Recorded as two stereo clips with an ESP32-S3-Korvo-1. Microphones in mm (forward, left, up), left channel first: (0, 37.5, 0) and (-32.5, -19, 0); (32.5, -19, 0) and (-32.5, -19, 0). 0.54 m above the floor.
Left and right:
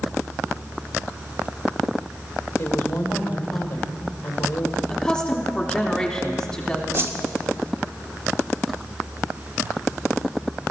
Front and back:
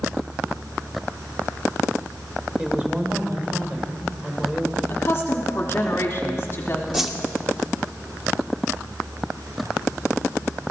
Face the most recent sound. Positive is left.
turn(degrees=-100)